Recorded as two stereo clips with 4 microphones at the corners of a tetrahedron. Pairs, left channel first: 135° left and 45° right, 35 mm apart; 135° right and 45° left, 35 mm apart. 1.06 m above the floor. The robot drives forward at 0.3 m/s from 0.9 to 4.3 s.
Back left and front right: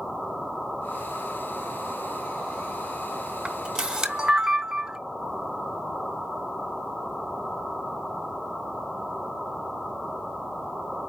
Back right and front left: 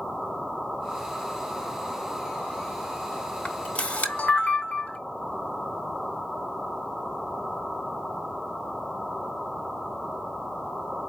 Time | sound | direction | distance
3.5 | a camera shutter | 95° right | 0.9 m